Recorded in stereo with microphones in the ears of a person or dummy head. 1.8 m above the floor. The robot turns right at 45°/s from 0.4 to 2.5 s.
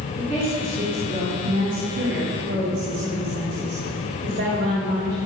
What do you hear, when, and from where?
0.2 s a woman speaking: 175° right, 3.5 m; by 5.2 s 80° right, 3.5 m